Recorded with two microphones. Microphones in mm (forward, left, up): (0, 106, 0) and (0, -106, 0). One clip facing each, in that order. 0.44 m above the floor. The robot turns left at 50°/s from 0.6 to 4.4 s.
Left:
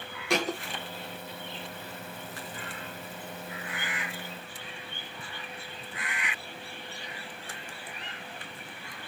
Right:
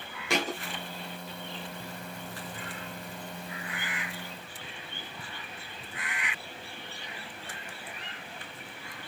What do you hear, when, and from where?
0.3 s a thud: centre (ahead or behind), 3 m